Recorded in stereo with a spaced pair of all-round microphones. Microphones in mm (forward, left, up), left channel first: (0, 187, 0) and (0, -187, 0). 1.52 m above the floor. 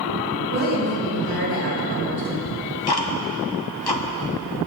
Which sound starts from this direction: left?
Ticking, at 2.5 s.